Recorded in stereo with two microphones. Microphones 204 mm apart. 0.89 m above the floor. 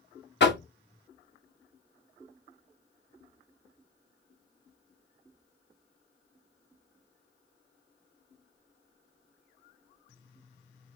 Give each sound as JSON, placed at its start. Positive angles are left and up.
{"t": 0.4, "sound": "knocking", "side_deg": 60, "distance_m": 0.9}